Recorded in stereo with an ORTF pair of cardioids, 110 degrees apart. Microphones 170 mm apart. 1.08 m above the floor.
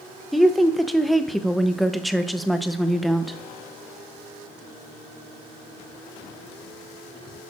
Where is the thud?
No thud in this recording.